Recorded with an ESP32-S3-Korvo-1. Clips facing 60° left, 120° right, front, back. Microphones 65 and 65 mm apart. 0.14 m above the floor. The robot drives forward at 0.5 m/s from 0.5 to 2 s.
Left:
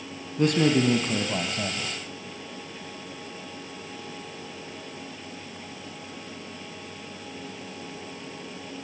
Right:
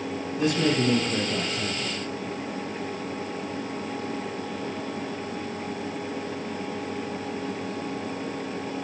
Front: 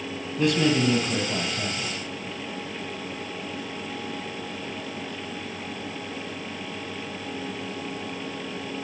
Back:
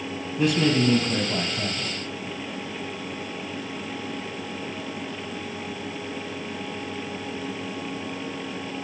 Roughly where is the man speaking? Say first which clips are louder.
Left 2 dB, even; left.